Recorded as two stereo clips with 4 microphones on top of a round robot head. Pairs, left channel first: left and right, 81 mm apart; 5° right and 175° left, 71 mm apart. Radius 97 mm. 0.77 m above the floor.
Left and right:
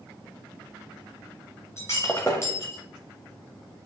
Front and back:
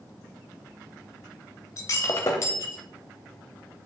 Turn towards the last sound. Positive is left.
turn(degrees=25)